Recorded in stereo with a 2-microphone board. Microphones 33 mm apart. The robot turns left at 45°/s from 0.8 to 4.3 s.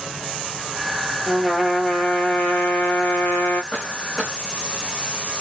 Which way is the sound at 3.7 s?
25° left (ahead or behind).